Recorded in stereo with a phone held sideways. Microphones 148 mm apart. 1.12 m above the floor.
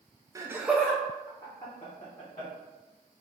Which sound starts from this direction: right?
Laughter, at 0.3 s.